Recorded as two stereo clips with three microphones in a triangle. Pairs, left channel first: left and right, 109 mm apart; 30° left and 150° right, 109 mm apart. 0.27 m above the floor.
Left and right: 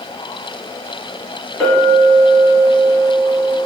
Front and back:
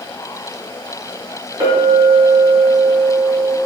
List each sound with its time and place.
1.6 s a clink: 170° left, 1.6 m